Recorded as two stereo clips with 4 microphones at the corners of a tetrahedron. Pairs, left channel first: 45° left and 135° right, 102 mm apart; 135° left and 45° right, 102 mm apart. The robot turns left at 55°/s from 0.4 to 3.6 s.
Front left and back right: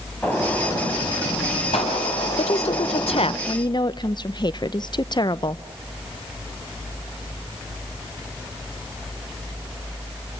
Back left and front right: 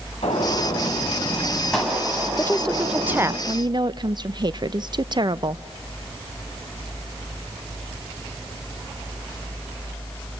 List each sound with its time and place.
0.2 s a gunshot: 125° left, 5.5 m; by 3.4 s 40° right, 5.5 m
2.4 s a woman speaking: 70° left, 0.7 m; by 5.6 s straight ahead, 0.7 m